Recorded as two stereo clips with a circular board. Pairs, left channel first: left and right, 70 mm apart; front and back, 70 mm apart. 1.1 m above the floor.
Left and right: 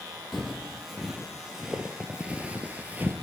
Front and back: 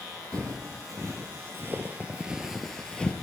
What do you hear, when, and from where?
0.3 s footsteps: 175° left, 1.9 m; by 3.1 s 55° right, 1.2 m